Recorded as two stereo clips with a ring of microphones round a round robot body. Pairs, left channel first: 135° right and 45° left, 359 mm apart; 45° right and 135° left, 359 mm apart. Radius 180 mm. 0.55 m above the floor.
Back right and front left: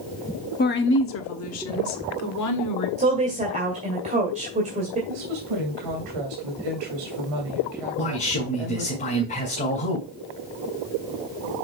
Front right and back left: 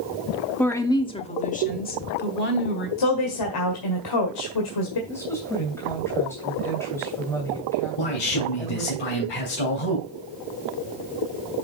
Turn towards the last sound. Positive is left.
turn(degrees=-65)